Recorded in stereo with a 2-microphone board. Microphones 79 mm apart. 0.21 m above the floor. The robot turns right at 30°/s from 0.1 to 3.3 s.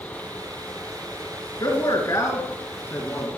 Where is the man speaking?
100° left, 2.5 m; by 3.3 s 150° left, 2.5 m.